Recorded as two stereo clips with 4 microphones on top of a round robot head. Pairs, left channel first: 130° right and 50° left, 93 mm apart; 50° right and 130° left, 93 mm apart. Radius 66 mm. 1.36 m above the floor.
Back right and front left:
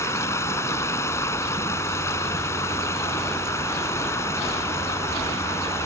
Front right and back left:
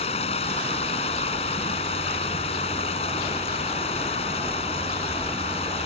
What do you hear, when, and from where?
0.0 s running water: 70° right